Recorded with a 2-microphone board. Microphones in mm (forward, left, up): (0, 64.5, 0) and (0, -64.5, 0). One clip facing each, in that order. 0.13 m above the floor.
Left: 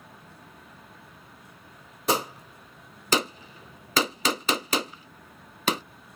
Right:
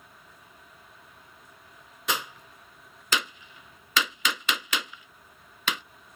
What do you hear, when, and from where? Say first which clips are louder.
0.0 s a vehicle: left 5 dB; 70° left (ahead or behind)
2.1 s a gunshot: left 6 dB; 40° left (ahead or behind)